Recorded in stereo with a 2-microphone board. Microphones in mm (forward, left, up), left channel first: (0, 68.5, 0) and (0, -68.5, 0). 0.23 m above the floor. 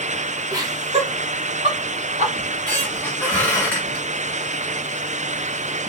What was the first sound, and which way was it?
Laughter, 25° right (ahead or behind).